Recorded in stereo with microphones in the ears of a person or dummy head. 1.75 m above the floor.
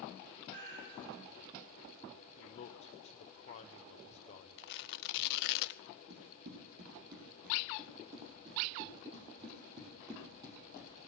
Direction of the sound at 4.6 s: 60° left (ahead or behind).